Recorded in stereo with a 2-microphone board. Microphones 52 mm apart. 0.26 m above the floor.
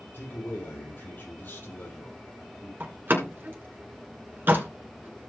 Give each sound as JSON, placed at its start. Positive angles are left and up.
{"t": 0.1, "sound": "a man speaking", "side_deg": 40, "distance_m": 7.0}
{"t": 2.8, "sound": "a door slam", "side_deg": -40, "distance_m": 2.5}